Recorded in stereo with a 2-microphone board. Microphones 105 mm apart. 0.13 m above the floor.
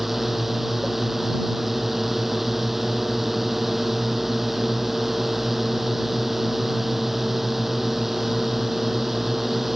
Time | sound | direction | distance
0.0 | a drone | centre (ahead or behind) | ?